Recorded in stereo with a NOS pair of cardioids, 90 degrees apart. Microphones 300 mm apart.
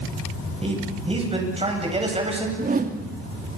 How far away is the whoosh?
About 2.5 m.